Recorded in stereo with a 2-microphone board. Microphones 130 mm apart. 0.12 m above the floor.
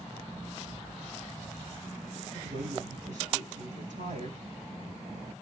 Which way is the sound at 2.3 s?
70° right (ahead or behind).